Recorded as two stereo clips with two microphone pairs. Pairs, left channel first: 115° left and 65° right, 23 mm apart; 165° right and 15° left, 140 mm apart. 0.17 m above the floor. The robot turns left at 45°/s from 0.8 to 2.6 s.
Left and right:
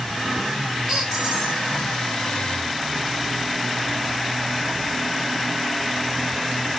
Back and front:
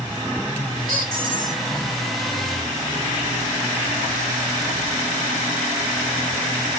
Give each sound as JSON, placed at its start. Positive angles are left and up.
{"t": 0.9, "sound": "a squeak", "azimuth_deg": 20, "distance_m": 3.5}